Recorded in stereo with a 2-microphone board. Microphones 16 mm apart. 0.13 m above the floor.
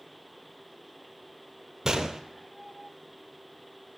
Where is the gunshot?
35° right (ahead or behind), 0.6 m.